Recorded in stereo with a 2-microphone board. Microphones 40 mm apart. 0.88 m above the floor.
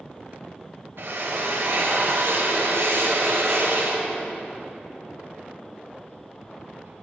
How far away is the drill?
About 2.5 m.